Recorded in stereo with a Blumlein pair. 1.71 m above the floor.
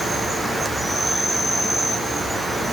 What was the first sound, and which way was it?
An insect, straight ahead.